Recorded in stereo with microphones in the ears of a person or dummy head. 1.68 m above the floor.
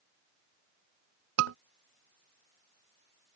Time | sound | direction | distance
1.4 | a scream | 70° right (ahead or behind) | ?